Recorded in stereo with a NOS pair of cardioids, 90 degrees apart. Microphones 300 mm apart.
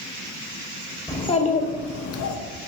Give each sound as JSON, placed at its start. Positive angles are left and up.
{"t": 1.1, "sound": "a child speaking", "azimuth_deg": 15, "distance_m": 0.9}